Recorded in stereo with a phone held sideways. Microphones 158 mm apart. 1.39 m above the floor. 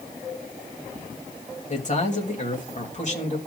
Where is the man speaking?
50° left (ahead or behind), 2.5 m.